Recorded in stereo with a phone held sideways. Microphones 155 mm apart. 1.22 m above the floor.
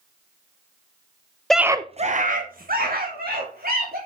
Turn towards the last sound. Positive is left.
turn(degrees=-80)